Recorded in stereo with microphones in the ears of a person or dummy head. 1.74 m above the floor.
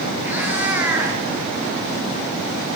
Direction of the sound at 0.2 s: 15° right (ahead or behind).